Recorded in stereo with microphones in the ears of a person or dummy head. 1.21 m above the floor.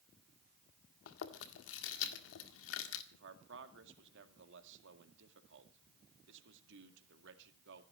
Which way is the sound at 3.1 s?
75° right (ahead or behind).